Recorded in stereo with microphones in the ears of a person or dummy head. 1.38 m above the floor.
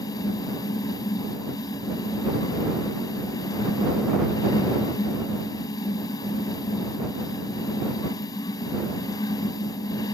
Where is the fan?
20° left (ahead or behind).